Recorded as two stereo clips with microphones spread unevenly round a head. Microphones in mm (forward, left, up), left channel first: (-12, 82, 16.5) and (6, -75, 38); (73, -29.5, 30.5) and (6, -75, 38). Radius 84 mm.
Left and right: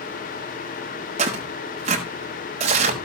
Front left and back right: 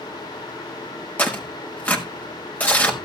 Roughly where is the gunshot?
No gunshot in this recording.